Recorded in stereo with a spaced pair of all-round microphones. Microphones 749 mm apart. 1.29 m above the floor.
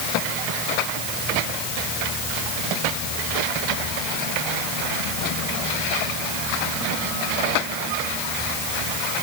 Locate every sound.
Only background noise.